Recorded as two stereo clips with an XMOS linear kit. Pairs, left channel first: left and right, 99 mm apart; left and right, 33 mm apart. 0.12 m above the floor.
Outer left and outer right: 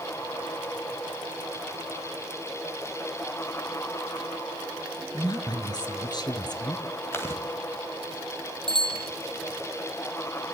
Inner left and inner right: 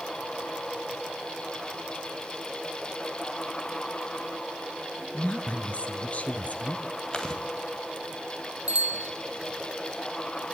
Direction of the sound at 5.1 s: 40° left (ahead or behind).